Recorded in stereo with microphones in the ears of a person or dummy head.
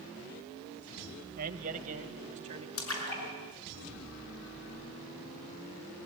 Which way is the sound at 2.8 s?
85° left.